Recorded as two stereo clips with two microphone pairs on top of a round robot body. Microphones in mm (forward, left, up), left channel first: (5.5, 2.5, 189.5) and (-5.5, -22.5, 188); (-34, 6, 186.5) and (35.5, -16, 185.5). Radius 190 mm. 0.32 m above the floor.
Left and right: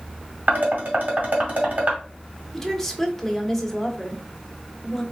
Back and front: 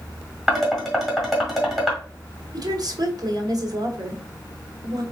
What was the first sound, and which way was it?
Dishes clattering, 105° right.